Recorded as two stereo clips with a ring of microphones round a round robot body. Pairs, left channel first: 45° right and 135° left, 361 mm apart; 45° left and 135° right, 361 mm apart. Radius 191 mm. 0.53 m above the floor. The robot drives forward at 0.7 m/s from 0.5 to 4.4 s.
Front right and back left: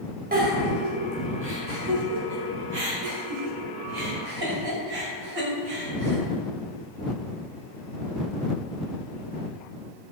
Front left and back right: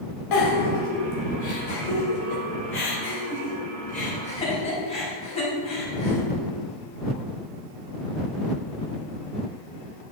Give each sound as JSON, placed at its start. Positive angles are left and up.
{"t": 0.3, "sound": "a giggle", "azimuth_deg": 70, "distance_m": 3.5}